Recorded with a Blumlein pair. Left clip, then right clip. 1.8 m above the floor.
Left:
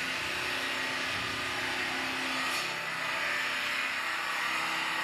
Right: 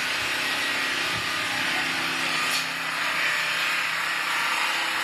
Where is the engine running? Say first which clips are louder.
Right 7 dB; 30° right, 1.7 m.